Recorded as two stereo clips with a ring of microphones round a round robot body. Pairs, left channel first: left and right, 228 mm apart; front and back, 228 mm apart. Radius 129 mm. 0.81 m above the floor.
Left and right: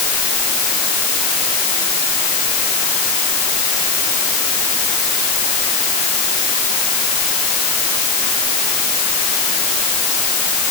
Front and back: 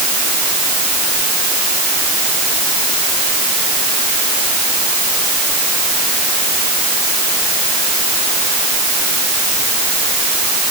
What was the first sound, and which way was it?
Only background noise.